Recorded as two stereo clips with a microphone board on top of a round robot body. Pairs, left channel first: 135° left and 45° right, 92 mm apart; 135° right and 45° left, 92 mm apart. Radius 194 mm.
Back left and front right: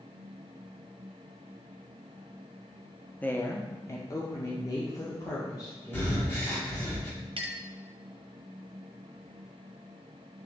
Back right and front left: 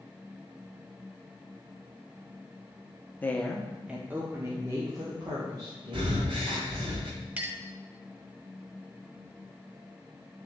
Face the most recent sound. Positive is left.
turn(degrees=-25)